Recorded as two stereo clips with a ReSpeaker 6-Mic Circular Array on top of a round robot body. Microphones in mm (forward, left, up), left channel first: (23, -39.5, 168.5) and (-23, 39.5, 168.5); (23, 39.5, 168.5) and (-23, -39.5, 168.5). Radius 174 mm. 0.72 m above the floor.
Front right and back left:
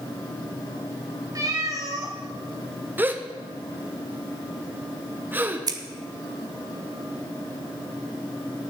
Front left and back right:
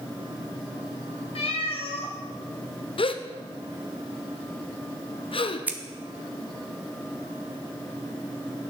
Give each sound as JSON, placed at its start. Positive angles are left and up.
{"t": 1.4, "sound": "a cat meowing", "azimuth_deg": 65, "distance_m": 1.6}
{"t": 3.0, "sound": "a gasp", "azimuth_deg": 50, "distance_m": 0.9}
{"t": 5.7, "sound": "scissors", "azimuth_deg": 165, "distance_m": 0.7}